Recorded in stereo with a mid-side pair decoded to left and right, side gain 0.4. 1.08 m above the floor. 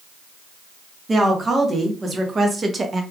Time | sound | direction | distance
1.1 | a woman speaking | 40° right | 1.6 m